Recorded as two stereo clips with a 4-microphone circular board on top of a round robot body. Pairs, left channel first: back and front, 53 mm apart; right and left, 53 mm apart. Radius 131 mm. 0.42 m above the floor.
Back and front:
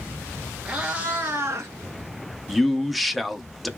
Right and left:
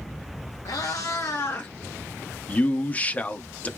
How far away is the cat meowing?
About 0.9 m.